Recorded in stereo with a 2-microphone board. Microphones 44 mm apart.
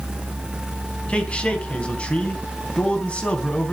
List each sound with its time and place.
1.1 s a man speaking: 25° left (ahead or behind), 3.5 m